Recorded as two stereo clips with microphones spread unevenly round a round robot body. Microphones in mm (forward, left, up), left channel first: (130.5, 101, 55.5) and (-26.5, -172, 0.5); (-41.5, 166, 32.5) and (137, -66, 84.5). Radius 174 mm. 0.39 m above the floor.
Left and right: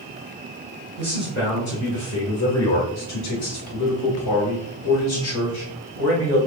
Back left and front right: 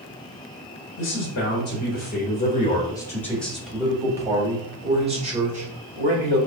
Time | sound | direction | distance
1.0 | a man speaking | 125° left | 1.9 m